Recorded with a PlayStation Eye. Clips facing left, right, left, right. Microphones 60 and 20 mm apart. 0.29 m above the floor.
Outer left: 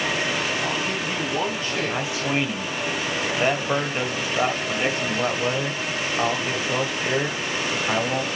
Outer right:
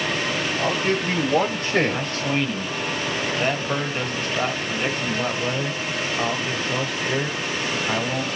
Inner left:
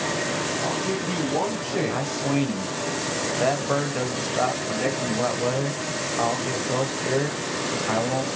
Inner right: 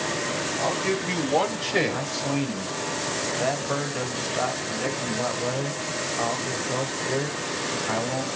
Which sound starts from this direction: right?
A man speaking, at 0.6 s.